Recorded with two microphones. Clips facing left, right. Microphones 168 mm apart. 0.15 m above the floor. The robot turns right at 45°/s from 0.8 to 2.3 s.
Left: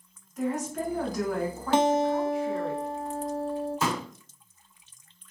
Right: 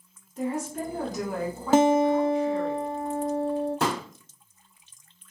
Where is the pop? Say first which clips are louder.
Right 2 dB; 75° right (ahead or behind), 1.6 m.